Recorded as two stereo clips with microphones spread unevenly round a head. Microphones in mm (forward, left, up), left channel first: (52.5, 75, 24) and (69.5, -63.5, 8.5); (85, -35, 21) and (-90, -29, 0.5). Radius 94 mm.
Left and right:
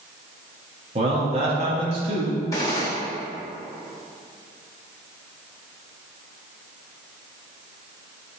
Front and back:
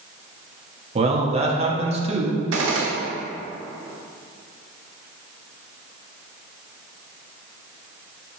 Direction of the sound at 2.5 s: 165° left.